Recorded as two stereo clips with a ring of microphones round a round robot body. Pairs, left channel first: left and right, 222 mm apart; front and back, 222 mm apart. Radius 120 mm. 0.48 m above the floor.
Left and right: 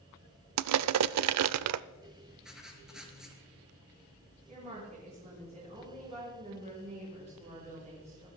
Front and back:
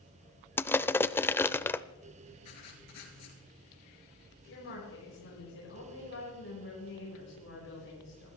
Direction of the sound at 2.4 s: 5° right.